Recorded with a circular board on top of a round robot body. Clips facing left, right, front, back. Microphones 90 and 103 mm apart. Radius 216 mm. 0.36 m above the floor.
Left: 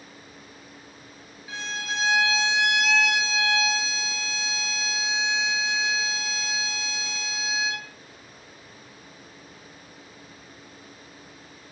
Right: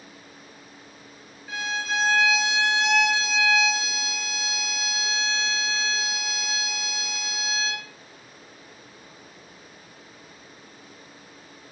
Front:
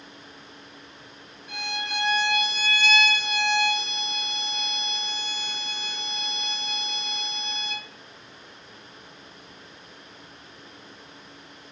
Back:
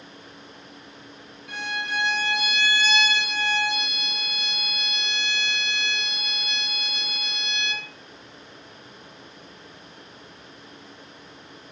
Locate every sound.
1.5 s a violin: straight behind, 2.5 m